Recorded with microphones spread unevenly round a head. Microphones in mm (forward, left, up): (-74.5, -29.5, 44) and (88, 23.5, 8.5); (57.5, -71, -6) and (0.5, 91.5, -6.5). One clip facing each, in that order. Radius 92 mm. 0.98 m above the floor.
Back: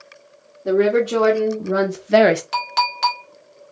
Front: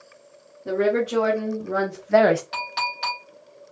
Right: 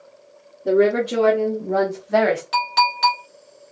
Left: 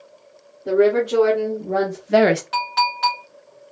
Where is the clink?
130° right, 1.8 m.